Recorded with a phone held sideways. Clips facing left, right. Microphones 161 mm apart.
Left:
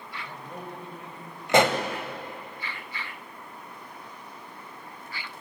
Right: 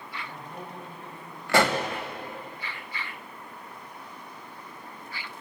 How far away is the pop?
About 1.5 m.